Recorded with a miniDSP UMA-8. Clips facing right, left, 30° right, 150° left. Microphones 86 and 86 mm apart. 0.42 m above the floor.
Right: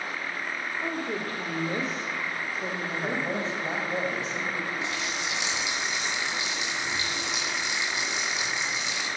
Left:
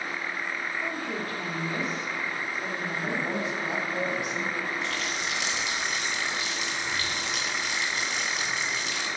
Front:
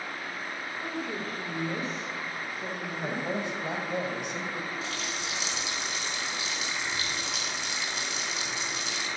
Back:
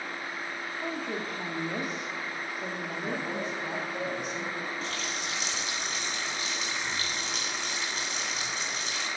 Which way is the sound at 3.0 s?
35° right.